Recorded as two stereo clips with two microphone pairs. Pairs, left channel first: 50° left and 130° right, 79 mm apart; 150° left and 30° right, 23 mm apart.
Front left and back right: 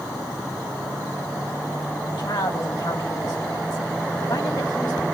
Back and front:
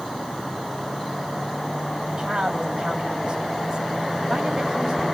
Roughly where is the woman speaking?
Ahead left.